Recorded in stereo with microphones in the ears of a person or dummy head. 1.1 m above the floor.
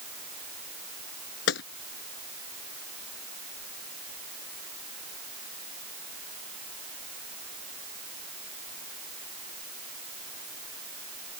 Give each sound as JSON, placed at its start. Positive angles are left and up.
{"t": 1.5, "sound": "a gunshot", "side_deg": 70}